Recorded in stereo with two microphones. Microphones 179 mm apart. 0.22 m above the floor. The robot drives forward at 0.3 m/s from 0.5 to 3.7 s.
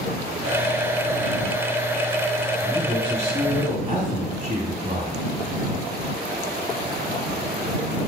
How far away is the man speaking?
About 1.9 m.